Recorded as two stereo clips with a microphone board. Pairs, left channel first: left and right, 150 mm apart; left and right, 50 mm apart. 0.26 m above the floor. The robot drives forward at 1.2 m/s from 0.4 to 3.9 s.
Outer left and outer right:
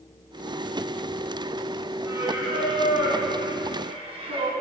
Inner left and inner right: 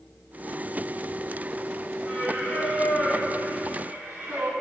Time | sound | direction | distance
2.0 | singing | 20° right (ahead or behind) | 4 m